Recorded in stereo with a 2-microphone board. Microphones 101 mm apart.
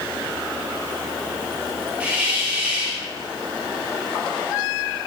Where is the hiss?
15° right (ahead or behind), 2.5 m.